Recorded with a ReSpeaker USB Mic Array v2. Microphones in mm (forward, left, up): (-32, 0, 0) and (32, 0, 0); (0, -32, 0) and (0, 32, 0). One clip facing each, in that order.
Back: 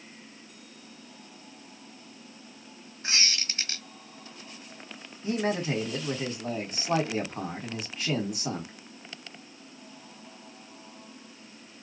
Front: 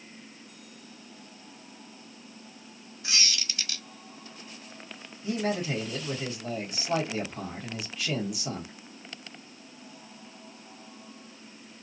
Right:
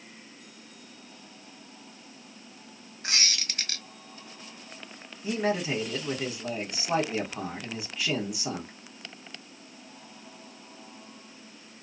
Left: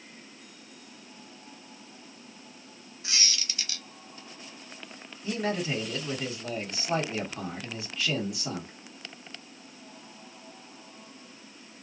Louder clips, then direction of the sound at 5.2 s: Back 1 dB, right 2 dB; 155° right.